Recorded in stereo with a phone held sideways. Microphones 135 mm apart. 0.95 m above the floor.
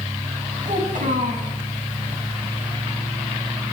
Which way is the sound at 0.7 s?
80° right.